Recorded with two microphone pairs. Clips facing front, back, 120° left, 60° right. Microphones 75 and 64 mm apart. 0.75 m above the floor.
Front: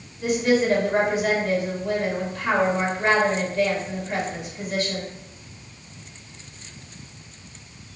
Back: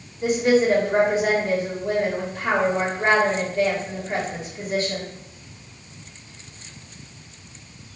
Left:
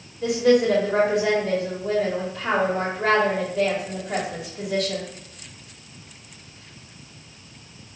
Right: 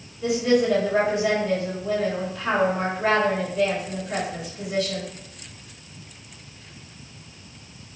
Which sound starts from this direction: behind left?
A woman speaking, at 0.2 s.